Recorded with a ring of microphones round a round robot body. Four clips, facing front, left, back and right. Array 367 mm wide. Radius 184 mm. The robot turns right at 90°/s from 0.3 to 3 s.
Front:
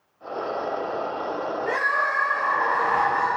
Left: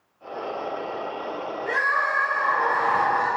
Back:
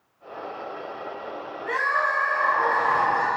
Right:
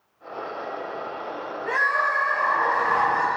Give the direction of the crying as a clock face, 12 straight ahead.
12 o'clock.